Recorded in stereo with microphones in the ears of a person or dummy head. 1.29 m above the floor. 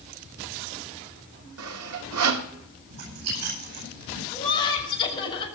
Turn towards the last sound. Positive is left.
turn(degrees=25)  # may be behind; listen again after turning